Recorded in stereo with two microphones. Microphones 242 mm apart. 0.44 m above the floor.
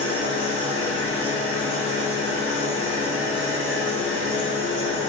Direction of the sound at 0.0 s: 30° left (ahead or behind).